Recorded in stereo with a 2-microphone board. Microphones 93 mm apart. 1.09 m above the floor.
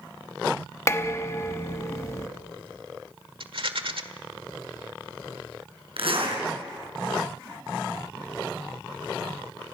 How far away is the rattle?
About 1.5 m.